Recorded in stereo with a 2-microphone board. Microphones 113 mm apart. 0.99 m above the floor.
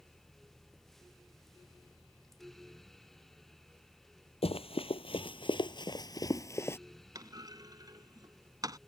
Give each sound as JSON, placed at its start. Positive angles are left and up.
{"t": 4.4, "sound": "running footsteps", "side_deg": 55}
{"t": 7.2, "sound": "a clunk", "side_deg": -30}